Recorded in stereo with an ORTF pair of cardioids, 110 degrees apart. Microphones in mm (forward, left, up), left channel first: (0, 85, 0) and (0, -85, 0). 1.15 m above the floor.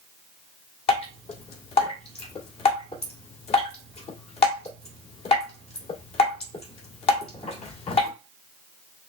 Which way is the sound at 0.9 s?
40° left.